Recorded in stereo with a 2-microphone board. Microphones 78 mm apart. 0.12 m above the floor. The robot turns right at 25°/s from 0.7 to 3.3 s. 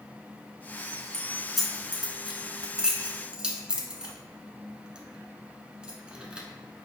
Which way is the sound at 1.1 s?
5° left (ahead or behind).